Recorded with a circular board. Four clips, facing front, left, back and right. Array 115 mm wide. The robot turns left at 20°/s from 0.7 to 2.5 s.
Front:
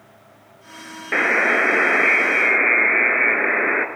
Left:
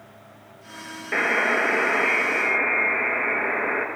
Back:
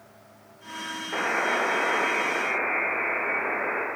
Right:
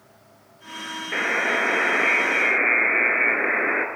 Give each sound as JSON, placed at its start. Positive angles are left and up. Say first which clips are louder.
{"t": 1.1, "sound": "a buzzer", "louder": "left 2 dB, front 7 dB", "azimuth_deg": 10, "distance_m": 0.5}